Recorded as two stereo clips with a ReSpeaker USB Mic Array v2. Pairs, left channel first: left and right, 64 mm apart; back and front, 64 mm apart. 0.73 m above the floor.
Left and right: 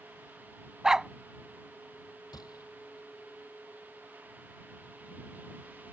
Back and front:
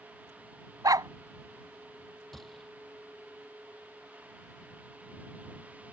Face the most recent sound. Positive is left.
turn(degrees=90)